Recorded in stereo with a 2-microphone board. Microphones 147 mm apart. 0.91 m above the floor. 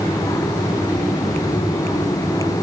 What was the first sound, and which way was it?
Only background noise.